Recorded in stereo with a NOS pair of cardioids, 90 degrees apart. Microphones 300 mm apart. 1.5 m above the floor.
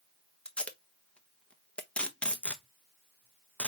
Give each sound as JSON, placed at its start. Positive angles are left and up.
{"t": 0.5, "sound": "tape being pulled", "azimuth_deg": 5, "distance_m": 1.0}